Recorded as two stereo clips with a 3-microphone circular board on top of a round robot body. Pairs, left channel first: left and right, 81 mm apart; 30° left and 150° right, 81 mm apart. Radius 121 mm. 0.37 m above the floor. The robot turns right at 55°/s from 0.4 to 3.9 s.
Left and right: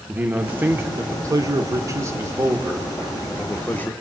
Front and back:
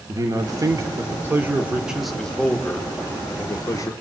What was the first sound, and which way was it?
A man speaking, 155° right.